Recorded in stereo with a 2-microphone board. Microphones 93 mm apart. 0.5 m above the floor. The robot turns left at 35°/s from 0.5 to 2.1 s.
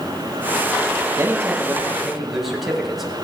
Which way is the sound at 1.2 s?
145° right.